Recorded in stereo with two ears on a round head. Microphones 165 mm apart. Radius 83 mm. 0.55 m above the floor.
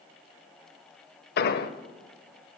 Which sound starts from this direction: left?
An explosion, at 1.4 s.